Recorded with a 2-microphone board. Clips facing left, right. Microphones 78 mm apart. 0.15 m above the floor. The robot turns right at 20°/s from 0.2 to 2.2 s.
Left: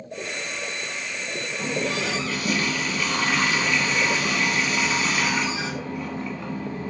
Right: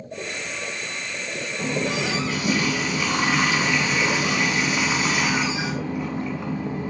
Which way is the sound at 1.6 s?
20° right (ahead or behind).